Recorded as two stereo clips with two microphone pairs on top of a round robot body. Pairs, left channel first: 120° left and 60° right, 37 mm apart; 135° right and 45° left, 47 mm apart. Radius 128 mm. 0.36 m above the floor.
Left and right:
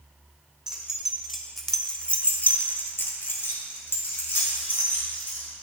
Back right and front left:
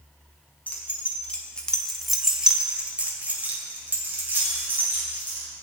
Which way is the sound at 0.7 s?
120° right.